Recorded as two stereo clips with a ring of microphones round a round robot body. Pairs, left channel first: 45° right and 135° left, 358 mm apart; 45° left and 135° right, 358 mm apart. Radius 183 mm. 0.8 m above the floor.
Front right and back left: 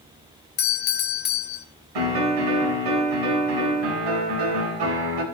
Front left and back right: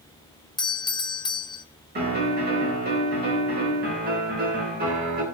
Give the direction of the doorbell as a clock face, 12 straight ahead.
1 o'clock.